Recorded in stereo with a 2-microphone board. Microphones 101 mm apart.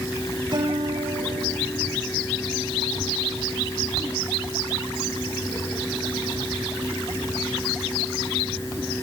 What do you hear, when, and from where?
0.5 s a guitar: 45° right (ahead or behind), 8.5 m